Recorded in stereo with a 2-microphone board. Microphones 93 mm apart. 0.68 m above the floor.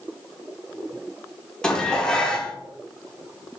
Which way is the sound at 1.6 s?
10° left (ahead or behind).